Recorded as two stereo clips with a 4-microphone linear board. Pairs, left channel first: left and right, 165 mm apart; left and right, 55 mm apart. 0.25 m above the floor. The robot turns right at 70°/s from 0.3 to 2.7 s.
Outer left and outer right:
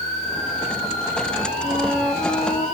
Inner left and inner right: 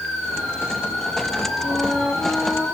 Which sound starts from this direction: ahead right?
A flute, at 1.6 s.